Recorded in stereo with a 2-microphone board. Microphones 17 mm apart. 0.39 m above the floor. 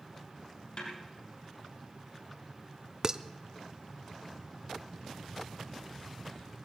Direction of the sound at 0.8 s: 50° left (ahead or behind).